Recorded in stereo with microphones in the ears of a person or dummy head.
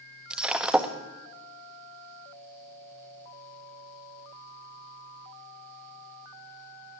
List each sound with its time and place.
0.3 s breaking glass: centre (ahead or behind), 1.2 m